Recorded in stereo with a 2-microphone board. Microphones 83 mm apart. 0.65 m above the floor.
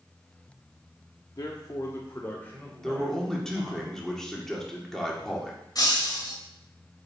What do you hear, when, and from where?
1.4 s a man speaking: 55° left (ahead or behind), 0.9 m; by 3.8 s 15° left (ahead or behind), 3.5 m
2.8 s a man speaking: 5° left (ahead or behind), 2.0 m
5.8 s breaking glass: 50° left (ahead or behind), 2.5 m